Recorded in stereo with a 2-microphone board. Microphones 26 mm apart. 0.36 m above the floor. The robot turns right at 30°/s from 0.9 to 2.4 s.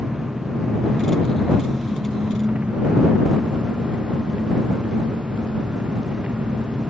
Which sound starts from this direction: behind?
An engine running, at 0.0 s.